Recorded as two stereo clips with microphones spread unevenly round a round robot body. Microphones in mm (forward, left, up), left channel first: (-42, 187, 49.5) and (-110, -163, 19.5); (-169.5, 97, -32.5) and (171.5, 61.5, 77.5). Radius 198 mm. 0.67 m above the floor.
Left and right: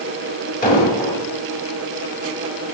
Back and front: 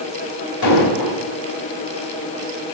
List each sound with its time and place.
0.6 s an explosion: 150° left, 4.5 m